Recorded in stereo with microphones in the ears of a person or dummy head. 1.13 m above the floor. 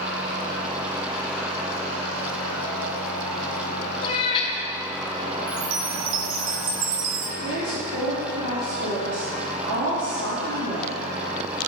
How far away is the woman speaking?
About 2.5 m.